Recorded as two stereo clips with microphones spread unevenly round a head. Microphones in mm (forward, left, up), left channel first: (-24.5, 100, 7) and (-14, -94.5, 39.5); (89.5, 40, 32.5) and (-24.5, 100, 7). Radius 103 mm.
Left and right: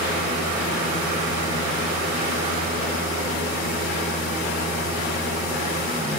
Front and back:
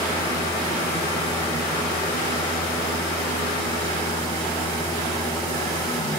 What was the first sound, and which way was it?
A fan, 20° right.